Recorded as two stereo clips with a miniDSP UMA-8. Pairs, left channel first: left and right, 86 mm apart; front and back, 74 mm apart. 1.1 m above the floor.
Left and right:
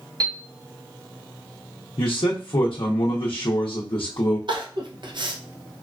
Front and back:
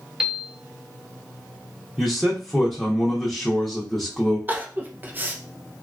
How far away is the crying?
About 0.6 m.